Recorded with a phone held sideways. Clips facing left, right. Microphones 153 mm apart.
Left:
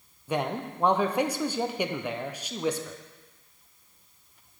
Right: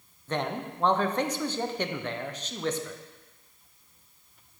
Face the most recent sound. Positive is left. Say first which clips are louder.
# left 2 dB
turn(degrees=10)  # may be behind; listen again after turning